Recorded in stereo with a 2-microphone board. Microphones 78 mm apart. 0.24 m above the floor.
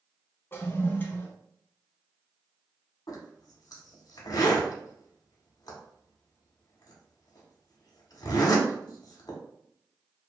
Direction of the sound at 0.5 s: 25° left (ahead or behind).